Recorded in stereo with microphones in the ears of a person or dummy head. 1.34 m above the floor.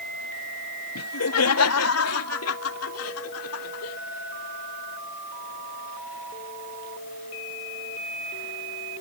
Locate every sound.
0.9 s laughter: 85° left